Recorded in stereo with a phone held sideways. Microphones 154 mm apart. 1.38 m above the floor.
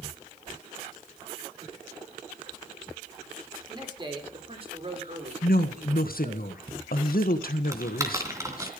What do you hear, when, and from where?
3.7 s a man speaking: 25° right (ahead or behind), 4 m; by 6.4 s 55° right (ahead or behind), 5 m
5.4 s a woman speaking: 75° left (ahead or behind), 1.6 m
7.7 s typing on a keyboard: 20° right (ahead or behind), 2.5 m